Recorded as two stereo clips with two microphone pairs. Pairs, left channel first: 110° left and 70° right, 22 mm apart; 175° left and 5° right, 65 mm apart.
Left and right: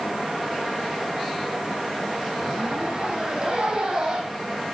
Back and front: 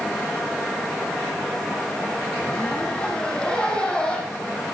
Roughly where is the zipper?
Behind right.